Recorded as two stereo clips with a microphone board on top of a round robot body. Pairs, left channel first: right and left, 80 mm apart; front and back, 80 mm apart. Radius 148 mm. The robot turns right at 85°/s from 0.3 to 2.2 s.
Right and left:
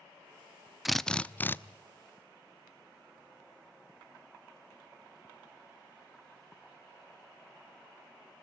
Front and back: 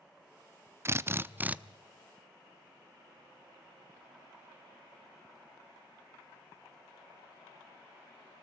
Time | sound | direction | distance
0.8 | a drill | 175° left | 0.9 m